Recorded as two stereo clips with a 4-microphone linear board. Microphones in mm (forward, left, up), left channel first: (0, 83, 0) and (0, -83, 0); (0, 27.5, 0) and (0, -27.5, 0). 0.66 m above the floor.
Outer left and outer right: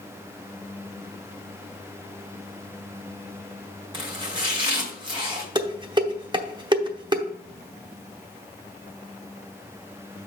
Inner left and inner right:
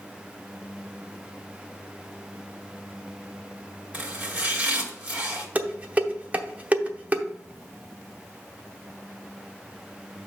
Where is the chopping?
30° right (ahead or behind), 2 m.